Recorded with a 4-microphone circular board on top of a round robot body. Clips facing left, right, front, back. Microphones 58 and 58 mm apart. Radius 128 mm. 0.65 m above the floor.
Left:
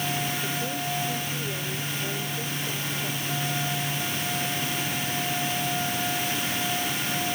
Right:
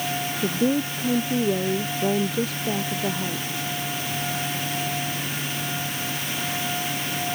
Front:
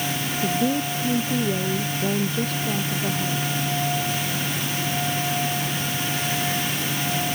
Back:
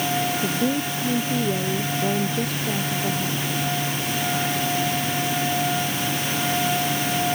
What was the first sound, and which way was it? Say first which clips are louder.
A woman speaking: right 7 dB, even; 95° right.